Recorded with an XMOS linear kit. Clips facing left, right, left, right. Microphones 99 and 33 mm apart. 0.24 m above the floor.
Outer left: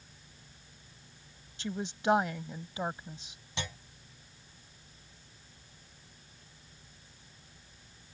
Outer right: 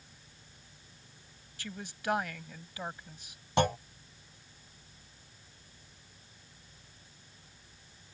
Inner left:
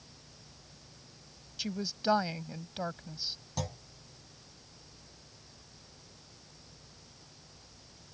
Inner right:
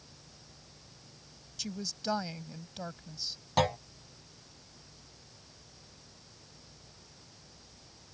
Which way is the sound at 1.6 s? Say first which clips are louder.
Outer left 6 dB, inner left 4 dB; 25° left (ahead or behind).